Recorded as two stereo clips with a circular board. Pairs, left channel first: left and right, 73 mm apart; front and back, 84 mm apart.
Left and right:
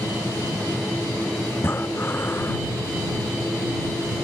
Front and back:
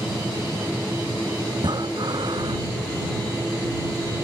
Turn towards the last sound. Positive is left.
turn(degrees=150)